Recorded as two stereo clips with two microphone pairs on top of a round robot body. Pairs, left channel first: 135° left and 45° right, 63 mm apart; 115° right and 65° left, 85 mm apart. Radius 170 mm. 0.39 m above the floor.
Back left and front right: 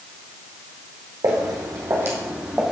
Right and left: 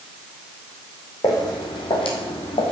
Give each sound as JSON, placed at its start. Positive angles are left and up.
{"t": 1.2, "sound": "footsteps", "azimuth_deg": -65, "distance_m": 2.0}